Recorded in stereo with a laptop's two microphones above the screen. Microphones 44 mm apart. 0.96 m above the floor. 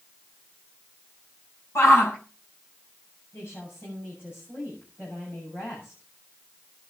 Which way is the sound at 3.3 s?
55° left (ahead or behind).